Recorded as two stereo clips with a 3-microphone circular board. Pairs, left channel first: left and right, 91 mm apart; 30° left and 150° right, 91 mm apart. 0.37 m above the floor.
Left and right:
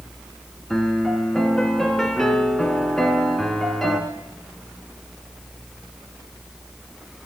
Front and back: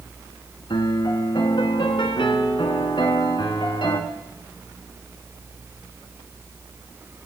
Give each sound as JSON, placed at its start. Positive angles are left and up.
{"t": 0.7, "sound": "a piano", "azimuth_deg": 5, "distance_m": 1.6}